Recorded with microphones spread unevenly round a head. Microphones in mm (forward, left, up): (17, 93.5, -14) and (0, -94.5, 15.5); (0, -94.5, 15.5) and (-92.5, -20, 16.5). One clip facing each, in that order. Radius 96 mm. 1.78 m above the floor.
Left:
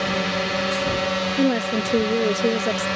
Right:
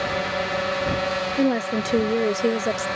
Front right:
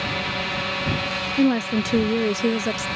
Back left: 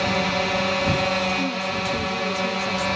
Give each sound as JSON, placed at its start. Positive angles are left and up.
{"t": 0.0, "sound": "a drone", "azimuth_deg": 95}
{"t": 1.4, "sound": "a woman speaking", "azimuth_deg": -5}